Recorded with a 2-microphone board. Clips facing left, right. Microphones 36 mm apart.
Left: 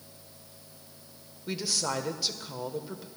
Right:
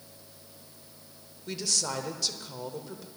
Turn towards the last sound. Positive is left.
turn(degrees=10)  # may be behind; listen again after turning